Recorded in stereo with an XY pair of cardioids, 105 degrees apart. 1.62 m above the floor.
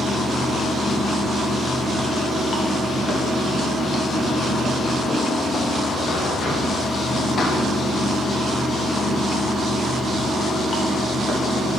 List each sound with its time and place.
0.0 s running water: 45° left, 1.2 m